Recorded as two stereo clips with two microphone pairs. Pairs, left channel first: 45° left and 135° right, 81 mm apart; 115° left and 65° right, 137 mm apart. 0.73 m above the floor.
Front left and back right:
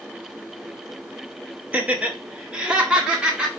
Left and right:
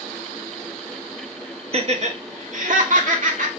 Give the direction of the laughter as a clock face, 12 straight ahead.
2 o'clock.